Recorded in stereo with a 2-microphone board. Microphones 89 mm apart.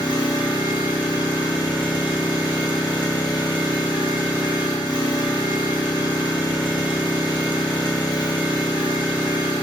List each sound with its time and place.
0.0 s an engine running: 65° left (ahead or behind), 1.1 m